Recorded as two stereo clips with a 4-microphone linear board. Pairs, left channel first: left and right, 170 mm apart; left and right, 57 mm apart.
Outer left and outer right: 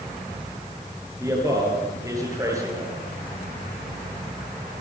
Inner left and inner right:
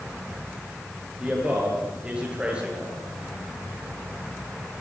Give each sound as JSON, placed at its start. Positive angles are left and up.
{"t": 1.2, "sound": "a man speaking", "side_deg": -20, "distance_m": 9.5}